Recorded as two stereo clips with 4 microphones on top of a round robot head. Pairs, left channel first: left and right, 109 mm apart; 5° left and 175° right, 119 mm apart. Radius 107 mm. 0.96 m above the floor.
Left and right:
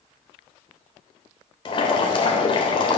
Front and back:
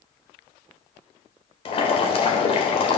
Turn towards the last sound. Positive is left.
turn(degrees=45)